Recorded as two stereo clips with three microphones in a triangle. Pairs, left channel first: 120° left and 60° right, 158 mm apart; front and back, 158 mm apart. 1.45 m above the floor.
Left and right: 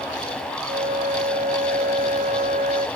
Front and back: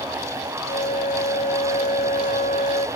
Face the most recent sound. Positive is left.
turn(degrees=-30)